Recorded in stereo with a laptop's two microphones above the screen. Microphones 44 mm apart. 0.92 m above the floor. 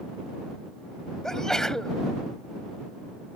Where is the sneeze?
15° left (ahead or behind).